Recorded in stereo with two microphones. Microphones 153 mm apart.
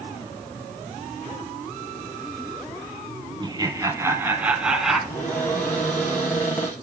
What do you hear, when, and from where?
3.4 s laughter: 30° right (ahead or behind), 2 m; by 5.0 s centre (ahead or behind), 2 m
5.1 s a cupboard door: 15° left (ahead or behind), 3.5 m